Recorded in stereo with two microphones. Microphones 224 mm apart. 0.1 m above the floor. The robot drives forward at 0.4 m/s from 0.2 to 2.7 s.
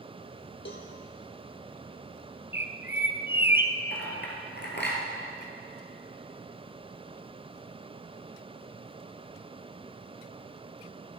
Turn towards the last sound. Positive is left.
turn(degrees=50)  # may be behind; listen again after turning